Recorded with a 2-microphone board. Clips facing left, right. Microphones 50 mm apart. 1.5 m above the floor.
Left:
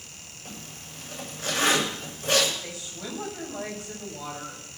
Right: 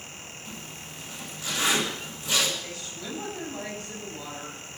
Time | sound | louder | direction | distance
0.5 | a zipper | left 1 dB | 45° left (ahead or behind) | 7 m
2.6 | a woman speaking | even | 15° left (ahead or behind) | 7 m